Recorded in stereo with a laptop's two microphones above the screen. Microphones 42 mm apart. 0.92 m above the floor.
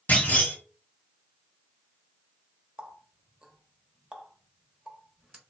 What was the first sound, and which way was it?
A clunk, 45° left (ahead or behind).